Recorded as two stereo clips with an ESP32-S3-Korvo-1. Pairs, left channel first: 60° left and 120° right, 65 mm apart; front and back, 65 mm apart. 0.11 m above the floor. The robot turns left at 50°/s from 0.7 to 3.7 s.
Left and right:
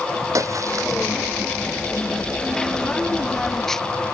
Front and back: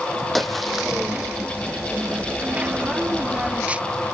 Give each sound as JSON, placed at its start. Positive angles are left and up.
{"t": 0.3, "sound": "a splash", "azimuth_deg": -90, "distance_m": 2.0}